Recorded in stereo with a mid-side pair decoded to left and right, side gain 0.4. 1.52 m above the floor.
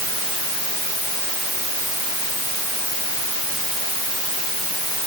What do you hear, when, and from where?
Only background noise.